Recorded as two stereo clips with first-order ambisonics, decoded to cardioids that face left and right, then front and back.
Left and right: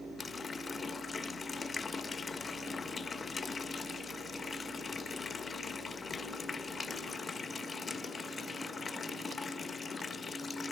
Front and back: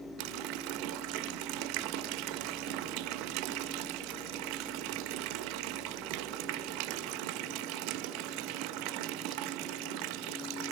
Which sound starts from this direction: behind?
A running tap, at 0.2 s.